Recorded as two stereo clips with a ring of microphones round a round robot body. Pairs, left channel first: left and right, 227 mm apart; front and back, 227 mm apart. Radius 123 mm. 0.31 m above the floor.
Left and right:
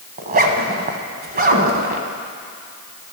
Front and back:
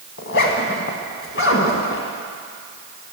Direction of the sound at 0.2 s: 40° right.